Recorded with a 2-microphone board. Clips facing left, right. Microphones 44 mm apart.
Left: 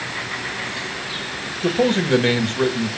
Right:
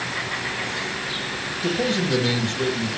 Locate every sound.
1.6 s a man speaking: 40° left (ahead or behind), 1.6 m